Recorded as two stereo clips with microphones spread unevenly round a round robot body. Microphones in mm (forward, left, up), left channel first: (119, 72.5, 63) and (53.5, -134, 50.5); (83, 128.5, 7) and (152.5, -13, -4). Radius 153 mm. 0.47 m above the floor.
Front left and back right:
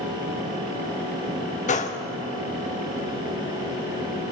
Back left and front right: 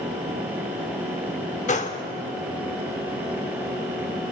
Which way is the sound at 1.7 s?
115° left.